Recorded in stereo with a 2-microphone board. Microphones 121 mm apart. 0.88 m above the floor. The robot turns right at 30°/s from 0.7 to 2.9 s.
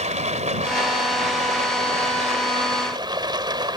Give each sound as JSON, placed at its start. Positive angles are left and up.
{"t": 0.0, "sound": "running water", "azimuth_deg": -105}